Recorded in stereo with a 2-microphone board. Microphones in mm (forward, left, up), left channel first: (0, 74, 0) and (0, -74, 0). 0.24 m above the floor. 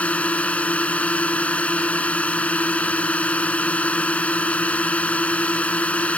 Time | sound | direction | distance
0.0 | a drone | 10° left (ahead or behind) | ?